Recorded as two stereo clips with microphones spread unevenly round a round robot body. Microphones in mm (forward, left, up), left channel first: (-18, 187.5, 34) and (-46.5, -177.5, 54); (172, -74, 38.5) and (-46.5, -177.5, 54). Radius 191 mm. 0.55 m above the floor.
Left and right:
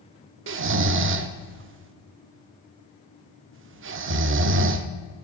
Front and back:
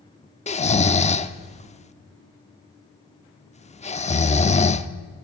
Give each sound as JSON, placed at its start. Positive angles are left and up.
{"t": 0.5, "sound": "snoring", "azimuth_deg": -35, "distance_m": 0.8}